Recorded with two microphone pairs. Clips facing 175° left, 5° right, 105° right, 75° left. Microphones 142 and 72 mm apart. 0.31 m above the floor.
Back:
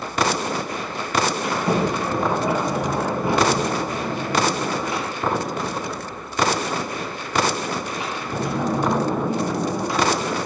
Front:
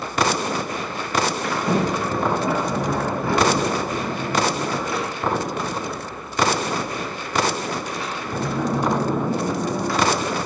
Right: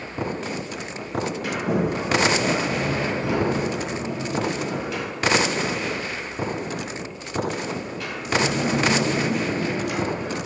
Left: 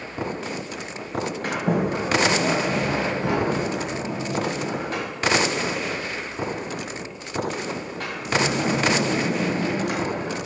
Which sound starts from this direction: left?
A sliding door, at 1.4 s.